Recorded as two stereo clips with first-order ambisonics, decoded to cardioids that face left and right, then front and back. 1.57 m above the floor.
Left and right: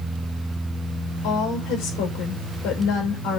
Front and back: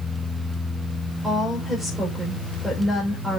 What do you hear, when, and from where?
1.2 s a woman speaking: 95° left, 5.5 m